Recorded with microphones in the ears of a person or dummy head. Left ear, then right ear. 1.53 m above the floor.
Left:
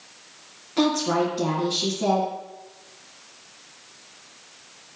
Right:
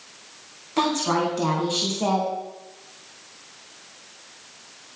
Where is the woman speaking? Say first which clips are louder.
Even; 25° right (ahead or behind), 3 m.